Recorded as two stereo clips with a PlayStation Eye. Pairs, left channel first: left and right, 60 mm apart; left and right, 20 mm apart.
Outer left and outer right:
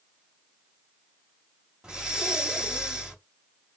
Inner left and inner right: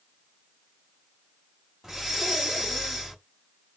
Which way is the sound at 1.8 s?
15° right (ahead or behind).